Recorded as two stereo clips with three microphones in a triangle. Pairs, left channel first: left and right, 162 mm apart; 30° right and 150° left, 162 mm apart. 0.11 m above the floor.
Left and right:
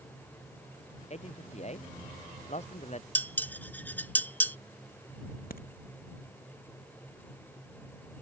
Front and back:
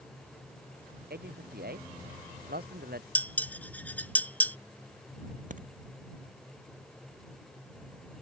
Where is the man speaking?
135° left.